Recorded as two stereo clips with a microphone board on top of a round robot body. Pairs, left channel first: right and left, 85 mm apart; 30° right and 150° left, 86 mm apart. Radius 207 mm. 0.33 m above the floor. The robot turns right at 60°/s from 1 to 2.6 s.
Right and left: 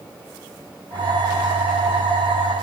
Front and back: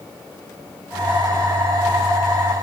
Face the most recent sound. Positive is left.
No sound to turn to.